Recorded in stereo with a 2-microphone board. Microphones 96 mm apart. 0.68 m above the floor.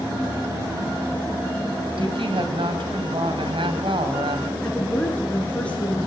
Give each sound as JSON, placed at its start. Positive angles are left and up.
{"t": 2.0, "sound": "a woman speaking", "side_deg": -65, "distance_m": 5.0}
{"t": 4.6, "sound": "a woman speaking", "side_deg": 10, "distance_m": 9.5}